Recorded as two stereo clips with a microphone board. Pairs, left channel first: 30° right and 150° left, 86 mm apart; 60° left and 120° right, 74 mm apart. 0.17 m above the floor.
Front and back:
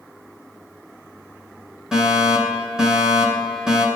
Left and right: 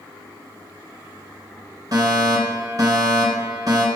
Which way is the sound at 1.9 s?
130° right.